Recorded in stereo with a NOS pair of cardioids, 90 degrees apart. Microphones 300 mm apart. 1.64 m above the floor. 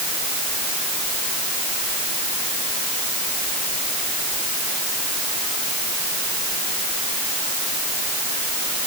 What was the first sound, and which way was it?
Only background noise.